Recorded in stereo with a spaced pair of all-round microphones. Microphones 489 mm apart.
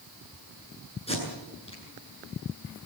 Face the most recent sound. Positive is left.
turn(degrees=10)  # may be behind; listen again after turning